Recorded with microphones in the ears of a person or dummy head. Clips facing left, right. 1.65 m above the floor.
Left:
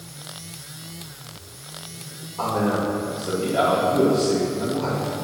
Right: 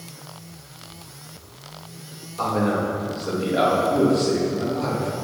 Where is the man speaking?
25° right (ahead or behind), 3 m.